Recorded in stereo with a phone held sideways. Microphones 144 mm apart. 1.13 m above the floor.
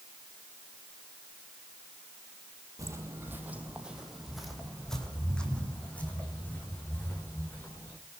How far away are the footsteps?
About 1.9 m.